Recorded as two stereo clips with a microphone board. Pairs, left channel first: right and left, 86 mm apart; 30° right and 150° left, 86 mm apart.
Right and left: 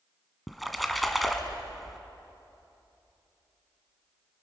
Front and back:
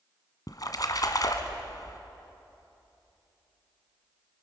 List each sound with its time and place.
0.5 s a splash: straight ahead, 1.7 m